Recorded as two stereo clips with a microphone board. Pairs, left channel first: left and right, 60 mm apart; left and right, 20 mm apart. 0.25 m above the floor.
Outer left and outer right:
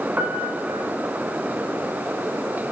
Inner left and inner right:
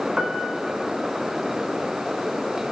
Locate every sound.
0.2 s a piano: 30° right (ahead or behind), 1.4 m